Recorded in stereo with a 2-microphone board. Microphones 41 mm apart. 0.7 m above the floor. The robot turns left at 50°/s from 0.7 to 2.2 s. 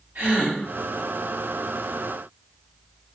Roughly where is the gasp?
Right.